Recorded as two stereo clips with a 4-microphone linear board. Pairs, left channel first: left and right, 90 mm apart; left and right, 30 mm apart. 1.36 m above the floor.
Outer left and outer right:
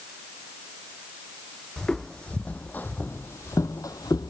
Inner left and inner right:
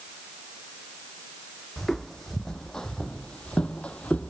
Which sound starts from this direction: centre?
Footsteps, at 1.8 s.